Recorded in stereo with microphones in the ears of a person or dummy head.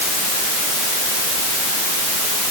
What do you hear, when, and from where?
Only background noise.